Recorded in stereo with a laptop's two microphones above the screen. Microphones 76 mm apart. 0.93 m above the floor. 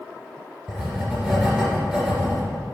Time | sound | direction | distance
0.7 | writing | 10° right (ahead or behind) | 2.5 m